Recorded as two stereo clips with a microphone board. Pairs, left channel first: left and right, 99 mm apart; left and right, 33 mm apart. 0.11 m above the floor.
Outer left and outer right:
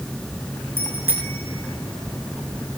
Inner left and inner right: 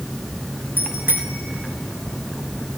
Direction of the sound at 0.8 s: 85° right.